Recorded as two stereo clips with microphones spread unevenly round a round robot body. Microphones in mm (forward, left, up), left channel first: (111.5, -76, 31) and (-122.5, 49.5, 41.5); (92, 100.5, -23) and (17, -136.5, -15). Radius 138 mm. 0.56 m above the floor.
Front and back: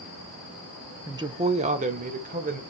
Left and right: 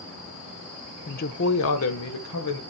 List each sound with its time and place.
1.1 s a woman speaking: 80° left, 0.7 m; by 2.6 s 95° left, 2.0 m